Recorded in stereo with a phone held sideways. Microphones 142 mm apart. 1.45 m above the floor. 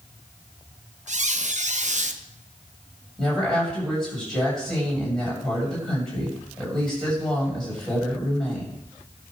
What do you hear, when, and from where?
1.1 s a squeak: 55° right (ahead or behind), 0.7 m
3.2 s a woman speaking: 5° left (ahead or behind), 6.5 m